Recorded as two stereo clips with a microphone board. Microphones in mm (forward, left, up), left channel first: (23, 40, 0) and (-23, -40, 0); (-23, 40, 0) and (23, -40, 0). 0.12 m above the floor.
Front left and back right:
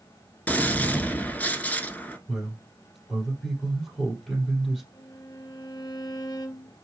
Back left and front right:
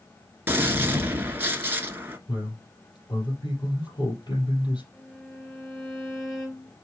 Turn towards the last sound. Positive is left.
turn(degrees=50)